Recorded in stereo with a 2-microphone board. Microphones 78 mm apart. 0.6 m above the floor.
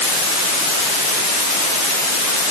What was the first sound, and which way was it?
Only background noise.